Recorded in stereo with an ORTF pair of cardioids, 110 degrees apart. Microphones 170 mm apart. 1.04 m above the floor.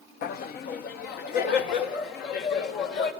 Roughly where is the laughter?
Left.